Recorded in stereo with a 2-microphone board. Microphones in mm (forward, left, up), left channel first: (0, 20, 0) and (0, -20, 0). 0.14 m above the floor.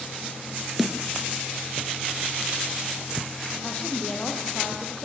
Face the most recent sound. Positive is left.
turn(degrees=25)  # may be behind; listen again after turning